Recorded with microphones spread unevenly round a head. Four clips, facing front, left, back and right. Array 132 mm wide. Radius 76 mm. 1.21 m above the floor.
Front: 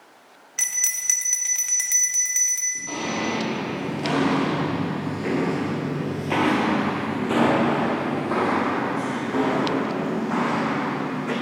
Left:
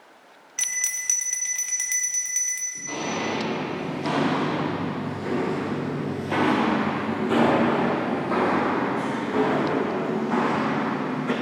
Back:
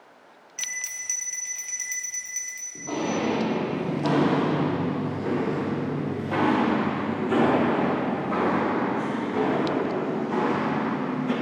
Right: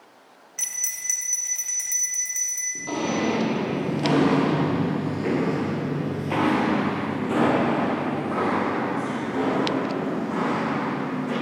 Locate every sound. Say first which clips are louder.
0.6 s a bell: left 7 dB, front 3 dB; 25° left, 1.1 m
2.8 s footsteps: right 4 dB, back 1 dB; 115° right, 2.0 m; by 11.3 s 40° left, 4.5 m